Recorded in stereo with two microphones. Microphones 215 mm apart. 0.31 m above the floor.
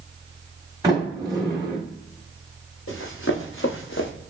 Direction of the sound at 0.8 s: 20° right (ahead or behind).